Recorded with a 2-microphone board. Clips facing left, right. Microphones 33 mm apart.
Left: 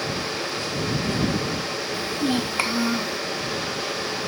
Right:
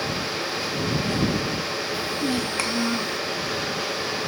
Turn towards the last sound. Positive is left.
turn(degrees=0)  # may be behind; listen again after turning